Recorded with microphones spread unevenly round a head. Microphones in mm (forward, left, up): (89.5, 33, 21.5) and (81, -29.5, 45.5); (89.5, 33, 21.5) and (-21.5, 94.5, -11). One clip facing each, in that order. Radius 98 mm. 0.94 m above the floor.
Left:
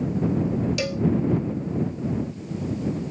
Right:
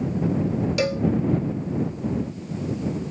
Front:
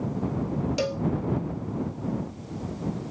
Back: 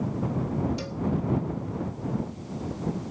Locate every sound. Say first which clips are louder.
0.8 s a cowbell: right 3 dB, front 5 dB; 40° right